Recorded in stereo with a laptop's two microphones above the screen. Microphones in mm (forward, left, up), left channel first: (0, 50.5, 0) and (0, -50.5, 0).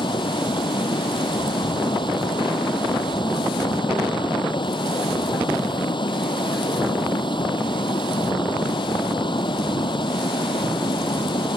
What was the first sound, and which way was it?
Running water, 55° left (ahead or behind).